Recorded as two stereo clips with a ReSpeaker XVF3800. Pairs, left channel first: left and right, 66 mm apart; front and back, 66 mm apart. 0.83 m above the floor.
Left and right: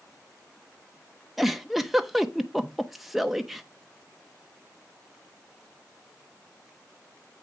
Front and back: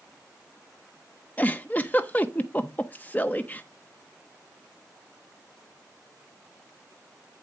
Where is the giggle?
Straight ahead, 0.7 m.